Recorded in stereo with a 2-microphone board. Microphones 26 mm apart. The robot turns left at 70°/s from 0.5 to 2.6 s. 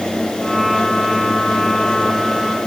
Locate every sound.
Only background noise.